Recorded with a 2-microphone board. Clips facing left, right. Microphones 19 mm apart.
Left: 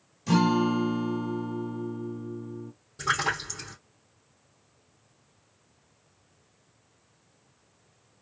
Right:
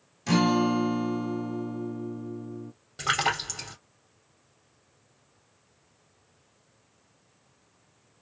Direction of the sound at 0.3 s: 35° right (ahead or behind).